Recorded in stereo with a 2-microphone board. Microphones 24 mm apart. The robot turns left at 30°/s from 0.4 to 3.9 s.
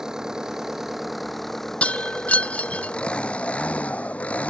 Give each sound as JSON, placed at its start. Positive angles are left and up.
{"t": 0.0, "sound": "an engine running", "azimuth_deg": -155}
{"t": 1.8, "sound": "breaking glass", "side_deg": 65}